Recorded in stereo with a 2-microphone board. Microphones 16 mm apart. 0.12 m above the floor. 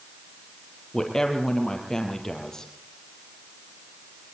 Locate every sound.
0.9 s a woman speaking: 35° left (ahead or behind), 4 m